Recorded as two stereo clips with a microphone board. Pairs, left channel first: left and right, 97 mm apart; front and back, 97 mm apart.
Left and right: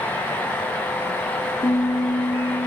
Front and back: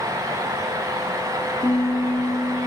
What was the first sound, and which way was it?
A piano, 55° left.